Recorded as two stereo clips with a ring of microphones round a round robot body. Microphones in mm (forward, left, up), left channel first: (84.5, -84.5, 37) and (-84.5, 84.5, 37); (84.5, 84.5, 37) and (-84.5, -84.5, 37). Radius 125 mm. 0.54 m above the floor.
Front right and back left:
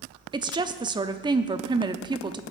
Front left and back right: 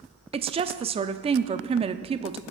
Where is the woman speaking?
175° right, 0.6 m.